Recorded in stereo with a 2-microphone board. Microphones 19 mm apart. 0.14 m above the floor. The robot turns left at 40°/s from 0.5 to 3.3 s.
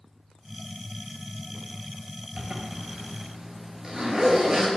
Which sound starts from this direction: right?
A zipper, at 2.4 s.